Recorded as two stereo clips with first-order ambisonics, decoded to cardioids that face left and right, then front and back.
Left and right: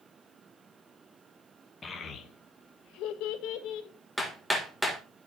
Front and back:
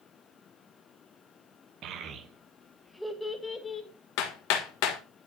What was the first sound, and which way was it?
A child speaking, 155° left.